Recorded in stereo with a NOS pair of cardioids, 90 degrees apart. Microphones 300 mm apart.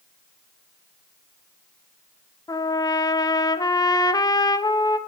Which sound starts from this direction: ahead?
A trumpet, at 2.5 s.